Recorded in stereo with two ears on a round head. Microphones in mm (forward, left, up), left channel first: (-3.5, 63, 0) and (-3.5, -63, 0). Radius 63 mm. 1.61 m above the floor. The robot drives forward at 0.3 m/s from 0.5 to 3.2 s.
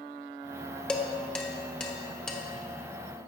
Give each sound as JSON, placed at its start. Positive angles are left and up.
{"t": 0.9, "sound": "dishes clattering", "side_deg": 5, "distance_m": 0.8}